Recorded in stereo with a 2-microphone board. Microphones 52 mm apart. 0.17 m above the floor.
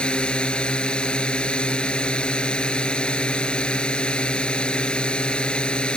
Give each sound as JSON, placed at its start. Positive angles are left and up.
{"t": 0.0, "sound": "a drone", "side_deg": 20}